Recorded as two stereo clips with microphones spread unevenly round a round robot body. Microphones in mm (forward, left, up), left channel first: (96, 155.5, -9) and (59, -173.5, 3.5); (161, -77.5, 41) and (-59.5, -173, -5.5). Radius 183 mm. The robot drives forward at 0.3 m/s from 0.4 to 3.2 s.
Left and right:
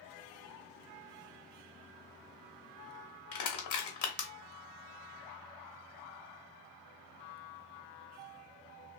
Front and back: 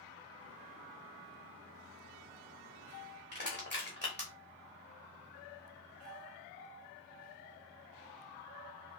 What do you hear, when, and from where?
3.3 s crushing: 130° left, 0.6 m